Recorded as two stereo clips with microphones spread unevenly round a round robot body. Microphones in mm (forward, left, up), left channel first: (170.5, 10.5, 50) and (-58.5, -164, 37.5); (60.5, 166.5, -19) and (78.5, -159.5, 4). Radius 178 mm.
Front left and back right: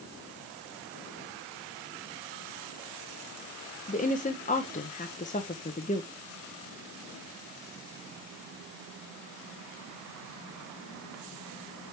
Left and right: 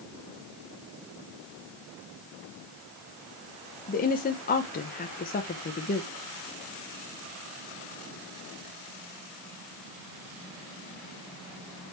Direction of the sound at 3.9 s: 80° left.